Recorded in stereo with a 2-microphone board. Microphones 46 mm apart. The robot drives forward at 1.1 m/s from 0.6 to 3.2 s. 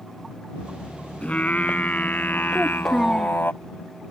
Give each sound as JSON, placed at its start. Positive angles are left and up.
{"t": 1.2, "sound": "singing", "side_deg": 30}
{"t": 2.5, "sound": "a child speaking", "side_deg": 10}